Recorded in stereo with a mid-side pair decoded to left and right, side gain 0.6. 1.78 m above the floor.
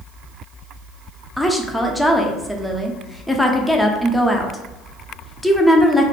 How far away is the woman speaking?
About 0.5 m.